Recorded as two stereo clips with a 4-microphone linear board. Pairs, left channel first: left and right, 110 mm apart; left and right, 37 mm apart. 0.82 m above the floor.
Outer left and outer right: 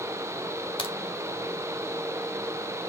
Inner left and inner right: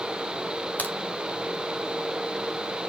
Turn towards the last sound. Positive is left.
turn(degrees=50)  # may be behind; listen again after turning